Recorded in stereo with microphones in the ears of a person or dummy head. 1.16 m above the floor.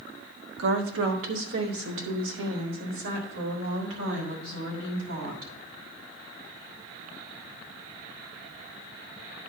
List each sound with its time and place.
0.6 s a woman speaking: 85° right, 1.5 m